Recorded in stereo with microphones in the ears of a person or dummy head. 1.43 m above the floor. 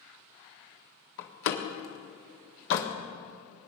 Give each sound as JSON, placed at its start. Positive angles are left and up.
{"t": 1.2, "sound": "a door slam", "side_deg": 65, "distance_m": 1.7}